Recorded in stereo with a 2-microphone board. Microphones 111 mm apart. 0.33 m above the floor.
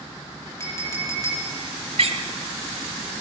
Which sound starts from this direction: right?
A door slam, at 2.0 s.